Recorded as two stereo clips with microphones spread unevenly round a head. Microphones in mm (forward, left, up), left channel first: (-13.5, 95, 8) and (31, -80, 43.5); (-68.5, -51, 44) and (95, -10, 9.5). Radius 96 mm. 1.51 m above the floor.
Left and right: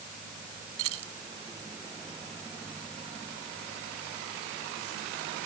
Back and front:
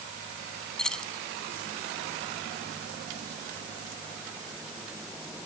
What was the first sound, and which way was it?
Keys jangling, 80° right.